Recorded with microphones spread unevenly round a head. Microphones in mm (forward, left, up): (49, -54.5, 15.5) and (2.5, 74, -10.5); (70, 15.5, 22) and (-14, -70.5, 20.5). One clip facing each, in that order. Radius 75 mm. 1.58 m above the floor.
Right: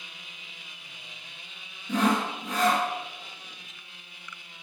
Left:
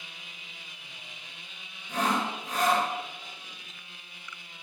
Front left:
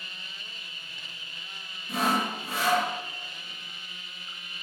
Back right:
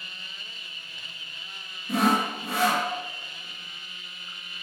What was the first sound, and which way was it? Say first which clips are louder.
Sawing: right 4 dB, back right 4 dB; 105° right.